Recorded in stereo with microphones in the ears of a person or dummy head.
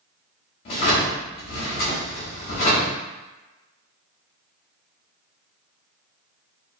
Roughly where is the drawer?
Left.